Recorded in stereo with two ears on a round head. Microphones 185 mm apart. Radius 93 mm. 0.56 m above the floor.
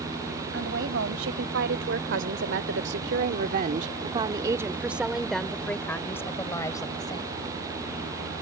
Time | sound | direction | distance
0.5 | a woman speaking | 60° right (ahead or behind) | ?